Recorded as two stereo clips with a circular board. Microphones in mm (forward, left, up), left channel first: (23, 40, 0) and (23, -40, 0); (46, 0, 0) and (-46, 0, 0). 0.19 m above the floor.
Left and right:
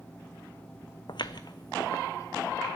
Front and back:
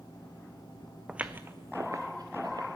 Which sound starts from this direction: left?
Footsteps, at 1.1 s.